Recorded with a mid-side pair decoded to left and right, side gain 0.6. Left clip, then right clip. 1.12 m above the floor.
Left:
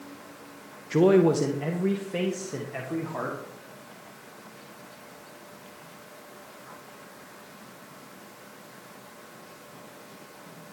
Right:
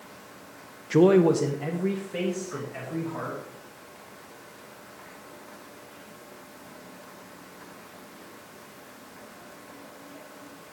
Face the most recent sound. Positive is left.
turn(degrees=35)